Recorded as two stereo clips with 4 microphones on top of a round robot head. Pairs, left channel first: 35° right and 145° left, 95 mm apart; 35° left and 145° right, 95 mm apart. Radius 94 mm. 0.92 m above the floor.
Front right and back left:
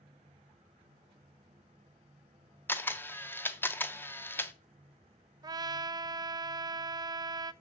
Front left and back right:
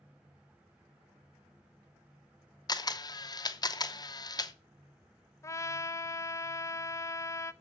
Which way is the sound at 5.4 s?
95° left.